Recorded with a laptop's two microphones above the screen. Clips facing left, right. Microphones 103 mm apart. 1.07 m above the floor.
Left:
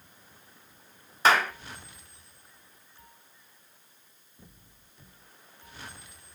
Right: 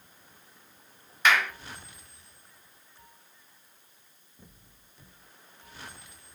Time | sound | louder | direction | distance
1.2 | a clap | left 2 dB | 40° left (ahead or behind) | 0.5 m